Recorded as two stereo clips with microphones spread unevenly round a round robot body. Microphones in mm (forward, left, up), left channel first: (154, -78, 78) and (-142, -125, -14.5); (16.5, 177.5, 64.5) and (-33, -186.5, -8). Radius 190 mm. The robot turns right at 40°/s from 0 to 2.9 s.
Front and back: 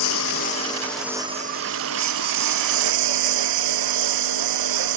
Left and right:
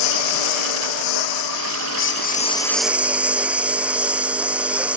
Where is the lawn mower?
60° left; by 5.0 s 175° left.